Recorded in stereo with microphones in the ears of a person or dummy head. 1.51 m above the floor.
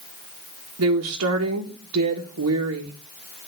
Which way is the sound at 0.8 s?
80° right.